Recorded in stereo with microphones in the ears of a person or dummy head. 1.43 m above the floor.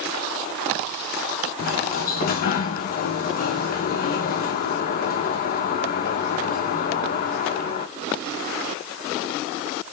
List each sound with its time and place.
1.6 s a sliding door: 50° left (ahead or behind), 0.6 m